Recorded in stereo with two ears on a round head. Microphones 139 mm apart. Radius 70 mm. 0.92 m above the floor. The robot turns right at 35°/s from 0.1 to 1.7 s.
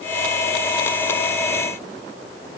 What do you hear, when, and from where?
Only background noise.